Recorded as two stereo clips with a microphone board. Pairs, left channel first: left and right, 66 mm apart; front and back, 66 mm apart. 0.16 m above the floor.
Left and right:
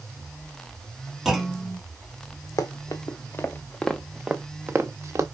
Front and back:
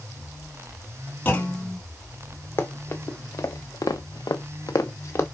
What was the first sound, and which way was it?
A clunk, 15° right.